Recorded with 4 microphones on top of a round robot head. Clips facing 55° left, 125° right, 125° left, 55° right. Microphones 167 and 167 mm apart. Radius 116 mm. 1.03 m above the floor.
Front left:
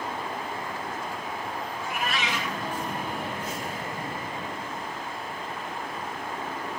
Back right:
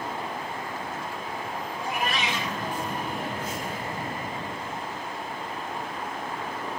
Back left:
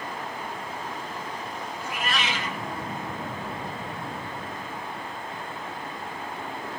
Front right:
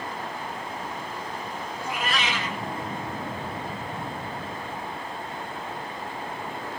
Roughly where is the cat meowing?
Ahead right.